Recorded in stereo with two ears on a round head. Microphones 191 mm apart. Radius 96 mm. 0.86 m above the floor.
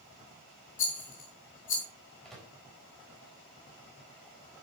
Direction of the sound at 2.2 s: Centre (ahead or behind).